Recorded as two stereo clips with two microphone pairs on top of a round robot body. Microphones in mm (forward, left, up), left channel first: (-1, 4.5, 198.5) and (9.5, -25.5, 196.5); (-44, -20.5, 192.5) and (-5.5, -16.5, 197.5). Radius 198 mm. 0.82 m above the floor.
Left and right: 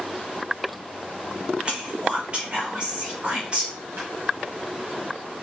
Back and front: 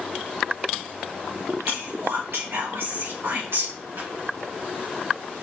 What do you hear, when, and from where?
1.6 s whispering: 15° right, 1.4 m
4.0 s a pop: 45° right, 2 m